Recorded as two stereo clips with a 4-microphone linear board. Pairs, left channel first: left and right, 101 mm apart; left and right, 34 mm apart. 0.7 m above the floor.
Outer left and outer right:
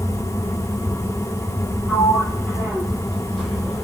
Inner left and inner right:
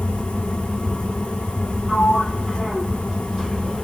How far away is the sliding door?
About 3 m.